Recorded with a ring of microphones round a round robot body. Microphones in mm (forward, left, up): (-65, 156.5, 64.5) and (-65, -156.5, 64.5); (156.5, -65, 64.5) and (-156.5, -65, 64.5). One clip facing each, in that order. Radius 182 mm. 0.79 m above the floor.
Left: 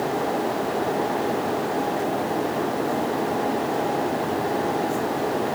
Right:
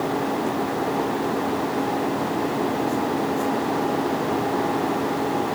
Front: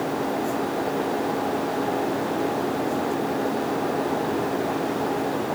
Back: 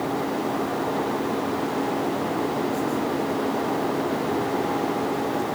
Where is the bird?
No bird in this recording.